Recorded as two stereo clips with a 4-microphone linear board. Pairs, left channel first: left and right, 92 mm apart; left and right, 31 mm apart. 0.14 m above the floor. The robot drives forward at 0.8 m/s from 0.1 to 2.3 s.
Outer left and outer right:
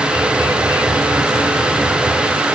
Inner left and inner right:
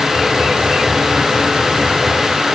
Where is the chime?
I don't hear a chime.